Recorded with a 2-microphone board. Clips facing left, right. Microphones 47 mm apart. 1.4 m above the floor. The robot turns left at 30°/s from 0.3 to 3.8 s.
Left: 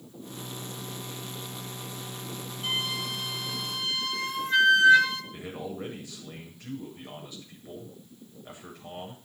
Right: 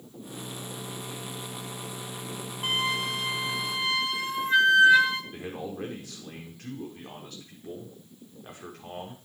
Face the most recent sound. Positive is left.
turn(degrees=-65)  # may be behind; listen again after turning